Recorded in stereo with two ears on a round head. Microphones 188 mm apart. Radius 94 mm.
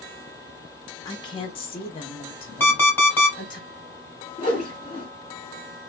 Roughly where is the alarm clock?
Centre.